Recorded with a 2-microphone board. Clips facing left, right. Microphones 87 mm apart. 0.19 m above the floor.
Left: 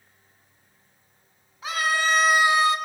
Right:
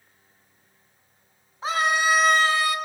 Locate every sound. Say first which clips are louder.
1.6 s a scream: right 2 dB; 35° right (ahead or behind), 1.3 m; by 2.8 s 25° left (ahead or behind), 1.5 m